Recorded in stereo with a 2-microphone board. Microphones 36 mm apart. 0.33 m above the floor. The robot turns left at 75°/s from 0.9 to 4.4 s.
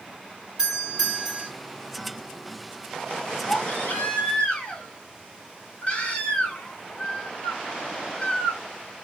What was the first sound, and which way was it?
A doorbell, 20° right (ahead or behind).